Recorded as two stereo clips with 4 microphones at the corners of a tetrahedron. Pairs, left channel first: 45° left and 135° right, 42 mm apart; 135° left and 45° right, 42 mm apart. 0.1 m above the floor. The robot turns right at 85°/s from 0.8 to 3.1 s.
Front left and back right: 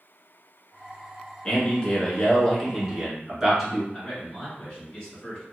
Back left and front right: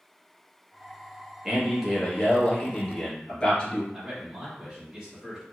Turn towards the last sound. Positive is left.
turn(degrees=5)